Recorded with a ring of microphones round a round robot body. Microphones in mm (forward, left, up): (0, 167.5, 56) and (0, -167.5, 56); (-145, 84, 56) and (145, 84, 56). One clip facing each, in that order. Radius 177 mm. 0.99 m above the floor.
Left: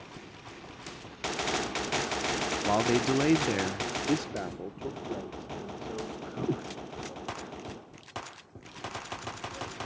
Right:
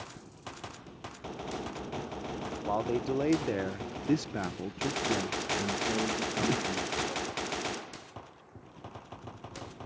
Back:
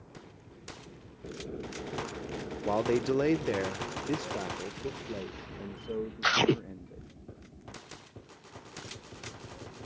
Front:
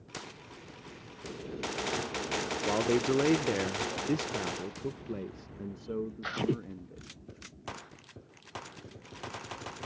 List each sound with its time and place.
2.6 s a man speaking: 80° left; by 7.1 s 75° right